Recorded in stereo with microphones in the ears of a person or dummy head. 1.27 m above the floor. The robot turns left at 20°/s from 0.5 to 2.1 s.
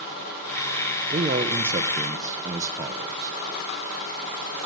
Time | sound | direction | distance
1.1 | a man speaking | 30° right (ahead or behind) | 0.7 m